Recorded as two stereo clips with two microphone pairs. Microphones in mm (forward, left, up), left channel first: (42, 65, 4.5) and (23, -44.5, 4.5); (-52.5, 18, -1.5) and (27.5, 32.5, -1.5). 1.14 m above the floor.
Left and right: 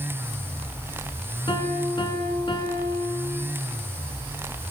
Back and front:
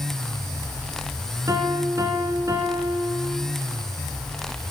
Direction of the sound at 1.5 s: 45° left.